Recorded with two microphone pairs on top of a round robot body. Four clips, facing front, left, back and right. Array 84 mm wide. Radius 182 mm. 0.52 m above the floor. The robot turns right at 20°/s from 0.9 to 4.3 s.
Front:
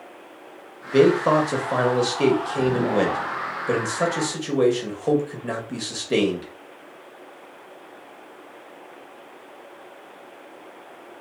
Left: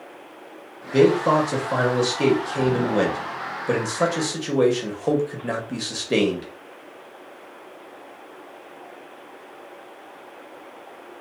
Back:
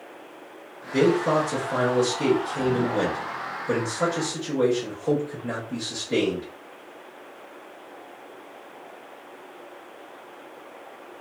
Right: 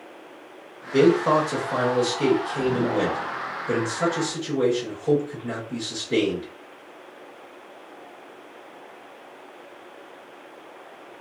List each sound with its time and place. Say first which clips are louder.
0.9 s a man speaking: left 1 dB, front 4 dB; 15° right, 1.4 m; by 6.5 s 55° left, 1.4 m